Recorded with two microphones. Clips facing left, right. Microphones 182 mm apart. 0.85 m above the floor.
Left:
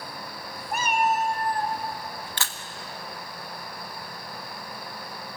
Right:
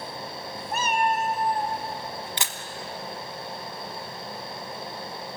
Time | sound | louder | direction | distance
0.7 | a cat meowing | left 1 dB | 15° left (ahead or behind) | 1.3 m
2.4 | a camera shutter | right 1 dB | 20° right (ahead or behind) | 1.3 m